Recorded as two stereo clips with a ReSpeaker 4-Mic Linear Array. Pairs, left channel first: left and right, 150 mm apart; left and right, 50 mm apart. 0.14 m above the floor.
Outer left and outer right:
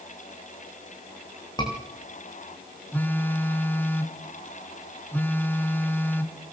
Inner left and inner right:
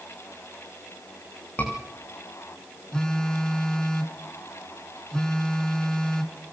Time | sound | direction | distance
1.6 | a scream | 30° left (ahead or behind) | 9.5 m
2.9 | a phone buzzing | 15° left (ahead or behind) | 1.7 m